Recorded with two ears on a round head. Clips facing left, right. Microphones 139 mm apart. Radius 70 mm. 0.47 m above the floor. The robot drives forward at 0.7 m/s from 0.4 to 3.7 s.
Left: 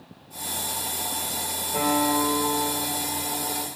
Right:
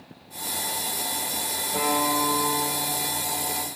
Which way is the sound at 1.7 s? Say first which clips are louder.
Left 2 dB; 10° left (ahead or behind).